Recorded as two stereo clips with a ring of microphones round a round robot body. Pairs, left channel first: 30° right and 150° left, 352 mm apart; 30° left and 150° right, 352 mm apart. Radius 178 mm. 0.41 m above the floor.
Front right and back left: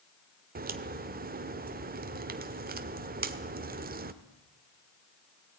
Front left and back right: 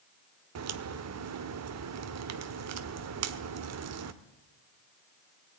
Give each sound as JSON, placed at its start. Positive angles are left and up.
{"t": 0.6, "sound": "a crack", "azimuth_deg": -155, "distance_m": 1.1}